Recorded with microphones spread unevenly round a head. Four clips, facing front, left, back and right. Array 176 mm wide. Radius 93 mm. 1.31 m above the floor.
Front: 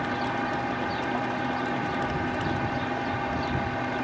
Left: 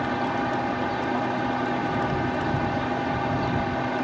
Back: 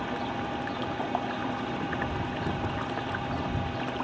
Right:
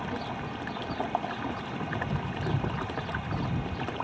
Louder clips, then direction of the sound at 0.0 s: Left 9 dB, front 4 dB; 70° left.